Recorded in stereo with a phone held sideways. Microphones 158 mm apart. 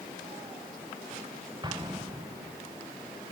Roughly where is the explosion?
Right.